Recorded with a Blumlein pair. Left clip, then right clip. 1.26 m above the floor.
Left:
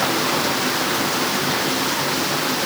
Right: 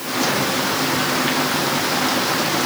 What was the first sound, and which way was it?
Only background noise.